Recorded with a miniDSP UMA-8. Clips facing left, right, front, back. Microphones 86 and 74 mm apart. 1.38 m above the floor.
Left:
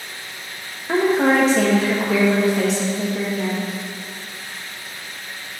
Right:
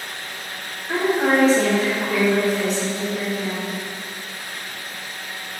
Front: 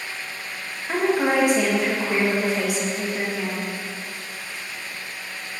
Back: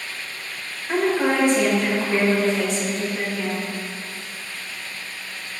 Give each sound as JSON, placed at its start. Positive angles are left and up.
{"t": 0.9, "sound": "a woman speaking", "azimuth_deg": 75, "distance_m": 1.4}